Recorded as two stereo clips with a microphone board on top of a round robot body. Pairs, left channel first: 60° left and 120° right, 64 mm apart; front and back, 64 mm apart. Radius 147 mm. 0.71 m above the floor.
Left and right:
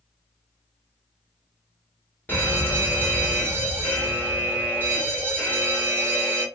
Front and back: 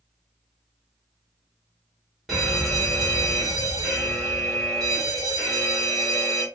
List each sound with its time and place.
2.3 s a fire alarm: 95° left, 2.0 m